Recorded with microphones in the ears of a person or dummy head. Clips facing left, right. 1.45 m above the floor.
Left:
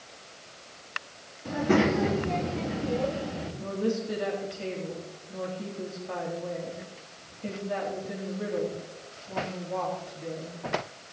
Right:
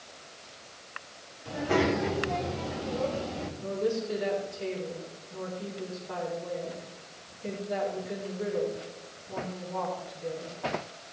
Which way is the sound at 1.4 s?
60° left (ahead or behind).